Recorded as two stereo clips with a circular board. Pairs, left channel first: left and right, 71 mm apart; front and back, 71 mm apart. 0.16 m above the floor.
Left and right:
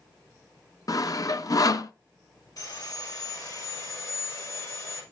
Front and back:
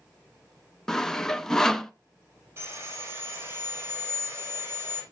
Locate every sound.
0.9 s sawing: 80° left, 0.6 m
2.6 s sawing: 125° left, 7.5 m